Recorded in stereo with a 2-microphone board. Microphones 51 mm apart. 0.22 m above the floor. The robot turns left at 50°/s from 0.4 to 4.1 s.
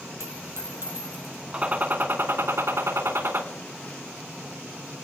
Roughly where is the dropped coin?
Right.